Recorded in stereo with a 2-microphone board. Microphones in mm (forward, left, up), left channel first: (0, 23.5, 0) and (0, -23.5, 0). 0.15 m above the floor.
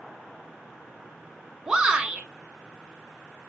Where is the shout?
15° right (ahead or behind), 1.1 m.